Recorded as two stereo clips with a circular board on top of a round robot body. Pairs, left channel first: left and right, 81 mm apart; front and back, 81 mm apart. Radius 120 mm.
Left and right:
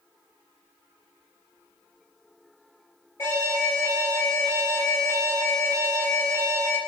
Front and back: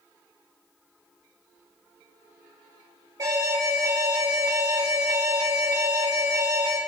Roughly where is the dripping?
No dripping in this recording.